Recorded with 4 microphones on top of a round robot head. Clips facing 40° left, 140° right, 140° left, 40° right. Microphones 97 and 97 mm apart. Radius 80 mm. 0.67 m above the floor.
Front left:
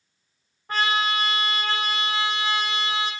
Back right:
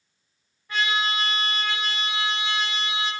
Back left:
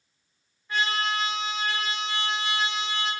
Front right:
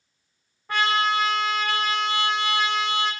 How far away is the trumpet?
About 0.6 m.